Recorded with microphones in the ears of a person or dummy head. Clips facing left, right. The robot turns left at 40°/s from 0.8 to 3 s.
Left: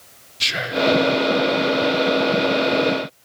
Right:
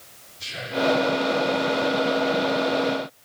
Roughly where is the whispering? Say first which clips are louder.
Left 4 dB; left.